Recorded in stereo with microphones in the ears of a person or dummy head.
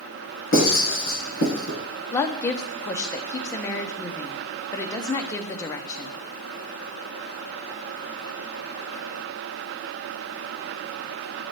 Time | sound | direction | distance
0.5 | writing | 55° left (ahead or behind) | 3.5 m
2.1 | a woman speaking | 25° left (ahead or behind) | 0.5 m